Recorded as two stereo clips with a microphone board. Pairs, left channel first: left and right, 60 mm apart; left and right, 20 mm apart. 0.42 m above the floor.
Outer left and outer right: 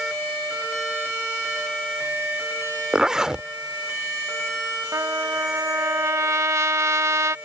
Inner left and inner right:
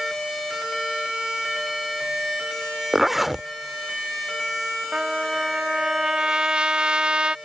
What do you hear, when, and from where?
2.9 s a zipper: 10° right (ahead or behind)
4.9 s a trumpet: 60° right (ahead or behind)